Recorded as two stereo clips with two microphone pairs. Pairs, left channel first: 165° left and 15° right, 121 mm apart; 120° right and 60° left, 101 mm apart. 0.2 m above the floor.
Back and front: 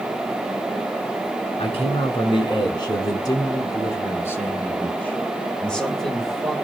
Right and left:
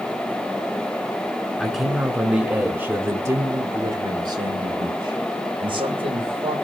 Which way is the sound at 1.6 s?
150° left.